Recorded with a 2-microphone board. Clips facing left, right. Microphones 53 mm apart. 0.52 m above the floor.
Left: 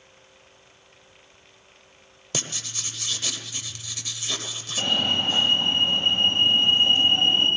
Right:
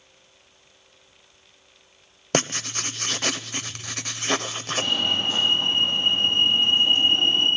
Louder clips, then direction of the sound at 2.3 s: Right 9 dB; 55° right (ahead or behind).